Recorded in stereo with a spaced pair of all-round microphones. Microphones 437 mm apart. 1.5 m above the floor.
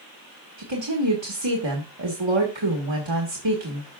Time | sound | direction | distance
0.6 | a woman speaking | 80° right | 1.6 m